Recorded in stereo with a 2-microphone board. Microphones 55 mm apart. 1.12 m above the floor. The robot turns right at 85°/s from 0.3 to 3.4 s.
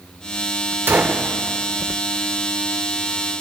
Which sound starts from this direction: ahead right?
A gunshot, at 0.9 s.